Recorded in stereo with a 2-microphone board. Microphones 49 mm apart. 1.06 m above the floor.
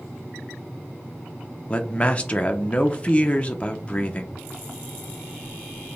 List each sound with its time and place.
1.7 s a man speaking: 25° left (ahead or behind), 0.7 m